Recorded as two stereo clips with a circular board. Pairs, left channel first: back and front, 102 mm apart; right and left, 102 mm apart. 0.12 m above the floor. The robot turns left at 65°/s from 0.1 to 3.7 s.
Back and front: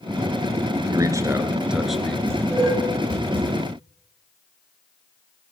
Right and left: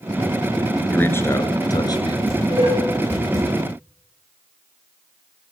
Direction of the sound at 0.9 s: 25° right.